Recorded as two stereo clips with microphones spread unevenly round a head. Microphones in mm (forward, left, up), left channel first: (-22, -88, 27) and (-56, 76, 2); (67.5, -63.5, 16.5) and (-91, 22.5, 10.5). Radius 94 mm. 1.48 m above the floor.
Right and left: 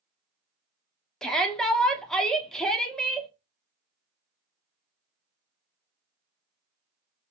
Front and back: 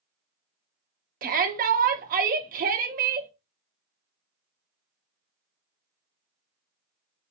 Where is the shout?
165° right, 1.0 m.